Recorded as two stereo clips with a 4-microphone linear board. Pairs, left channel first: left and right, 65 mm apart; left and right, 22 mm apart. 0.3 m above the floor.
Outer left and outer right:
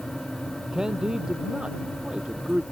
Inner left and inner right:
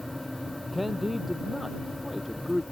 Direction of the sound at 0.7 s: 10° right (ahead or behind).